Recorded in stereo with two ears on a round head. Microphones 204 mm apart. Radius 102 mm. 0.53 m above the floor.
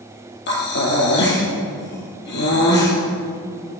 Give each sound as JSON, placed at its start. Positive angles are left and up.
{"t": 0.5, "sound": "breathing", "side_deg": 50, "distance_m": 4.0}